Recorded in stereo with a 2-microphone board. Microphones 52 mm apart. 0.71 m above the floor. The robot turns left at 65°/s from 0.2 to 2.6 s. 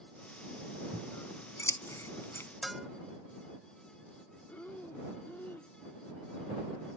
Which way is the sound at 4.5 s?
40° left (ahead or behind).